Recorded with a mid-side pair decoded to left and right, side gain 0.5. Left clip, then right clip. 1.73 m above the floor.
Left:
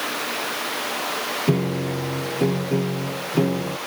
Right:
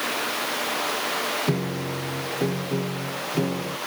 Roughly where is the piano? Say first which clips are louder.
Left 4 dB; ahead left.